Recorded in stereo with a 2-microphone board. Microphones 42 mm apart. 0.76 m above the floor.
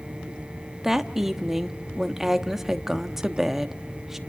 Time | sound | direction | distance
0.8 | a woman speaking | 10° right (ahead or behind) | 1.0 m